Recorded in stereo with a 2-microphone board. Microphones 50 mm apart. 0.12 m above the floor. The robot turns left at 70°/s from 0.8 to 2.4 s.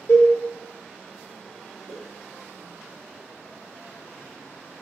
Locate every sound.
0.1 s a cowbell: 75° left (ahead or behind), 1.1 m
1.9 s a whoosh: 60° right (ahead or behind), 0.5 m; by 2.0 s 50° right (ahead or behind), 0.5 m